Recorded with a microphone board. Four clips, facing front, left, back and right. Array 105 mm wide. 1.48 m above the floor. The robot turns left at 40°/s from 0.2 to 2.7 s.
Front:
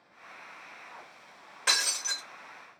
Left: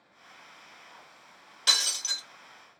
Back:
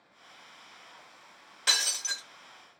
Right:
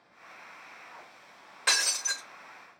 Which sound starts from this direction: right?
Breaking glass, at 1.7 s.